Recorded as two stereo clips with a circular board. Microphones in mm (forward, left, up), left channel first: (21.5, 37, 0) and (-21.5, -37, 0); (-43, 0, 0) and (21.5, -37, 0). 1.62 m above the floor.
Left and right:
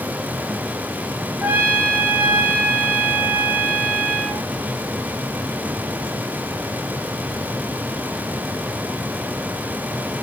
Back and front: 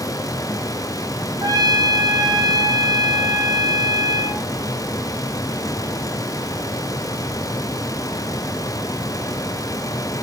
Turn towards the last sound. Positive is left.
turn(degrees=-55)